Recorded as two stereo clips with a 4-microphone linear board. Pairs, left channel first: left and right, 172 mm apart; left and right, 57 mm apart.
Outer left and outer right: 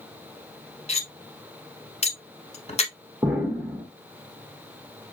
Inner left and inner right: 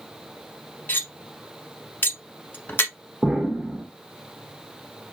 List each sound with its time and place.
0.9 s cutlery clinking: 40° left (ahead or behind), 0.9 m
3.2 s an explosion: 5° right (ahead or behind), 1.5 m